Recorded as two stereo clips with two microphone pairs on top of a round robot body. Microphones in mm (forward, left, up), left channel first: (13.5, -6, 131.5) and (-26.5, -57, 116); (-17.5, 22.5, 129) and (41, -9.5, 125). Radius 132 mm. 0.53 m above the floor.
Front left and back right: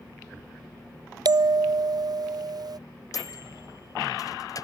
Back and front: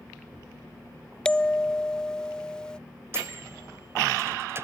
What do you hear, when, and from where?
1.2 s a bell: 130° right
3.1 s a microwave: 15° left